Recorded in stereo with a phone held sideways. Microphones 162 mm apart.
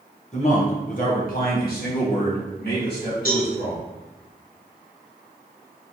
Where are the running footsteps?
I don't hear running footsteps.